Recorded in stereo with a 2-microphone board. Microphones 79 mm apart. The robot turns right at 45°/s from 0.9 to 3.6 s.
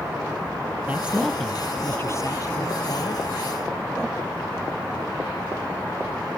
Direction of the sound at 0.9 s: 20° right.